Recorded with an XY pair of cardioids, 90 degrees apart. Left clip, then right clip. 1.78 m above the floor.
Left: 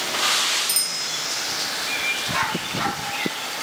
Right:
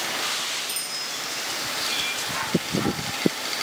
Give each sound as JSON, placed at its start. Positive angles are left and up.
{"t": 0.7, "sound": "a bicycle bell", "azimuth_deg": 65, "distance_m": 2.5}